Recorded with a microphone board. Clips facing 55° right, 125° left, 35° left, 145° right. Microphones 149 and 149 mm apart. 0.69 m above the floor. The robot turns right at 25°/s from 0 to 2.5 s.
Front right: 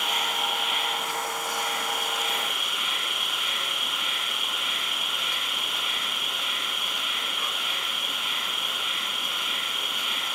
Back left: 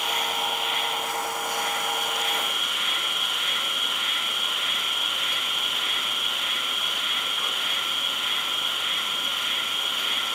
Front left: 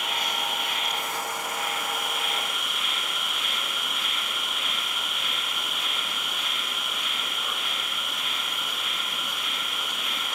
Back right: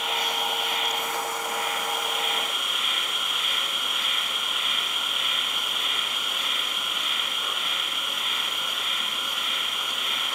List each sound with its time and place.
0.0 s an insect: 60° left, 7.5 m; by 10.4 s 120° left, 7.5 m